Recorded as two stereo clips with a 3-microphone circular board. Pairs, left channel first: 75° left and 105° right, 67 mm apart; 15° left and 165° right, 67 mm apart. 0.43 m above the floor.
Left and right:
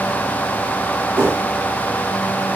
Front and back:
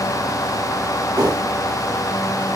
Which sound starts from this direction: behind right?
A whoosh, at 1.1 s.